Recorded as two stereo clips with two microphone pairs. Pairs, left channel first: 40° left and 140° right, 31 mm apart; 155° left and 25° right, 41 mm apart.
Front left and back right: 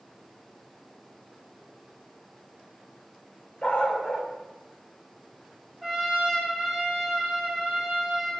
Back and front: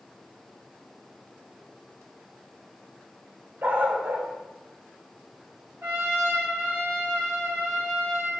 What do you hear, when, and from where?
3.6 s a dog barking: straight ahead, 2.0 m
5.8 s a trumpet: 60° right, 3 m